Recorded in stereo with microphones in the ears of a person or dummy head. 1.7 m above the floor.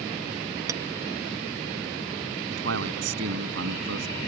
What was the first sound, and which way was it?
A clink, 20° right (ahead or behind).